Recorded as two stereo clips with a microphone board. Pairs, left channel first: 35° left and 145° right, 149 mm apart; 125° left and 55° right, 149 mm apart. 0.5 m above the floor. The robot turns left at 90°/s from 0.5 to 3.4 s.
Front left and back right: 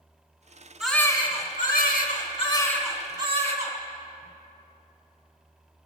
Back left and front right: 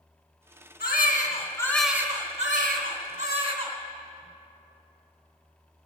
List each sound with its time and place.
0.8 s a baby crying: 130° left, 2.5 m; by 3.8 s 105° right, 2.5 m